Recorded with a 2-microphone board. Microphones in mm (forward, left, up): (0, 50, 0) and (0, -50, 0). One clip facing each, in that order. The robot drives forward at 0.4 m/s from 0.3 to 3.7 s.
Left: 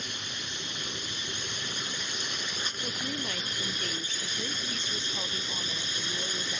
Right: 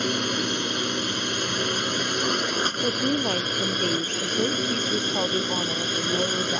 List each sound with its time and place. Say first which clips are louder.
0.0 s a drone: right 16 dB; 75° right (ahead or behind); by 6.6 s 65° right (ahead or behind)
2.8 s a woman speaking: right 12 dB; 45° right (ahead or behind)